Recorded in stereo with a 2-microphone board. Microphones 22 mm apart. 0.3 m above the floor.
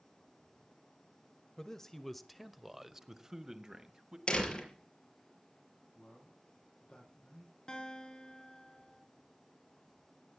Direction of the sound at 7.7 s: 30° left (ahead or behind).